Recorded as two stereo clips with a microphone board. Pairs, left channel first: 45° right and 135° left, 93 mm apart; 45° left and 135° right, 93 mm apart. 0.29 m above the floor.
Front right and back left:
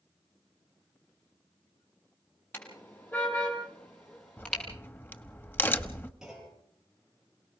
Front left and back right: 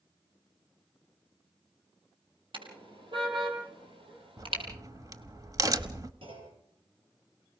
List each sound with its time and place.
2.5 s a car horn: 110° right, 5 m; by 4.6 s 125° right, 5 m
4.4 s a crack: 105° right, 1.1 m
6.2 s a clunk: 140° right, 8.5 m